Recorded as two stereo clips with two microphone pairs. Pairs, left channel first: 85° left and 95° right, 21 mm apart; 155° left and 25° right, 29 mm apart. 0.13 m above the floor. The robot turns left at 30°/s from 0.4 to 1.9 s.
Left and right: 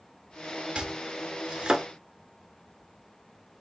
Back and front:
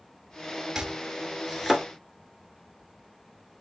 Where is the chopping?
90° right, 1.3 m; by 1.8 s 125° right, 1.3 m.